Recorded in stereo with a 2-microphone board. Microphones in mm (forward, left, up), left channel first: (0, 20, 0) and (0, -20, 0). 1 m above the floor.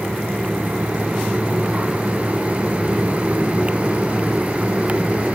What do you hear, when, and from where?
Only background noise.